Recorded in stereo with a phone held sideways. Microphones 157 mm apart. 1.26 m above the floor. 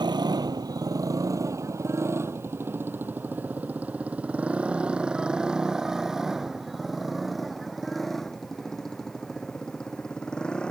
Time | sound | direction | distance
0.0 | a motorcycle | 30° right (ahead or behind) | ?